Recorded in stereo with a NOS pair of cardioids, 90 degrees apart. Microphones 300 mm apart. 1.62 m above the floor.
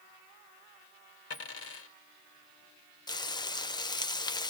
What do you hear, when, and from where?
1.3 s a dropped coin: 55° left, 3 m
3.1 s frying: 15° left, 1.0 m